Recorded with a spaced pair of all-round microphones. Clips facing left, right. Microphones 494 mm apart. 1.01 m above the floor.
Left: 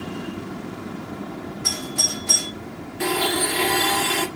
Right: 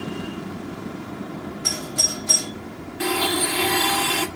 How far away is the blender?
About 1.3 m.